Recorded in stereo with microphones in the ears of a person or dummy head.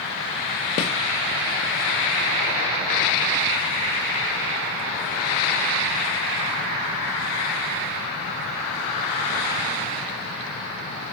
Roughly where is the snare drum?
Left.